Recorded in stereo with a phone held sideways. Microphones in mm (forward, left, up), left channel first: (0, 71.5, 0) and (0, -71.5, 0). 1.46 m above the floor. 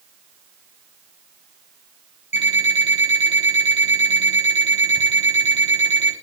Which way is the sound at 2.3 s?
50° left (ahead or behind).